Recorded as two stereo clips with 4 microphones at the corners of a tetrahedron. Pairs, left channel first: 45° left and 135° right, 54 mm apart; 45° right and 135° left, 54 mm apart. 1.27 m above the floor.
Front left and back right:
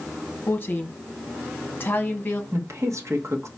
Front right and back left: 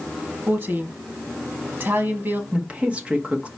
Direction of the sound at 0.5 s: 95° left.